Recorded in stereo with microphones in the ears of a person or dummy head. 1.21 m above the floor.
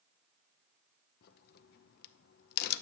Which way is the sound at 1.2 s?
55° left (ahead or behind).